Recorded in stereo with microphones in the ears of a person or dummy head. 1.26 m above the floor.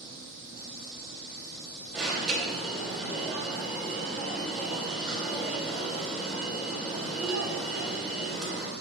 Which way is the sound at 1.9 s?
Centre (ahead or behind).